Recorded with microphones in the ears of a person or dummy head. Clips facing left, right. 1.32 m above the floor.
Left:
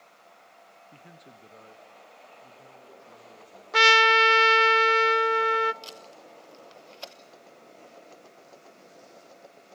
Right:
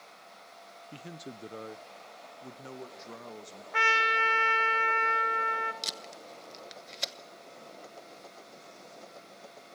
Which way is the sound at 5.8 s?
25° right (ahead or behind).